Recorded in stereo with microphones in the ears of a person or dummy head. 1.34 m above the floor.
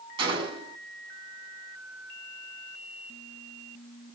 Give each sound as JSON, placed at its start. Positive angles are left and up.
{"t": 0.2, "sound": "a gunshot", "side_deg": -30, "distance_m": 7.0}